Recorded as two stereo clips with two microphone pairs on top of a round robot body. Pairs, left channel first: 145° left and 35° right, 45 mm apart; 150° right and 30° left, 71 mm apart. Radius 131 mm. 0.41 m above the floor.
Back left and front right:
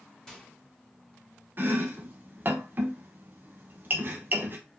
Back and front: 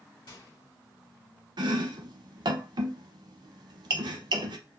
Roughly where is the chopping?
Ahead.